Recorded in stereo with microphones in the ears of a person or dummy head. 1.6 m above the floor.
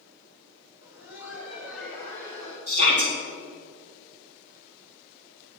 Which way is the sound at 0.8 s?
15° right (ahead or behind).